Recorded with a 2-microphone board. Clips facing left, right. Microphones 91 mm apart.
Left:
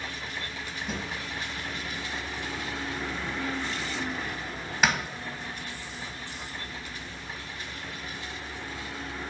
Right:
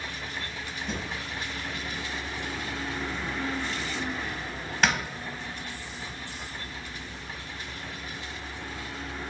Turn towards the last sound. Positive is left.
turn(degrees=5)  # may be behind; listen again after turning